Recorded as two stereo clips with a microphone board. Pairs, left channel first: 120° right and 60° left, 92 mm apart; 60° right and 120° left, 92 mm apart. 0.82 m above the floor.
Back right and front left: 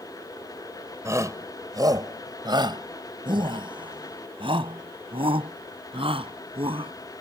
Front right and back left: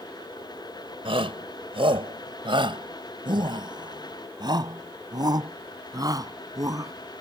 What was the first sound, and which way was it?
A shout, 120° left.